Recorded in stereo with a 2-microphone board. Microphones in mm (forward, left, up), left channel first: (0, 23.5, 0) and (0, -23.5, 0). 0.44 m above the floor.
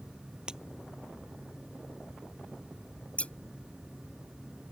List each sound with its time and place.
0.5 s breaking glass: 15° right (ahead or behind)
3.2 s scissors: 30° left (ahead or behind)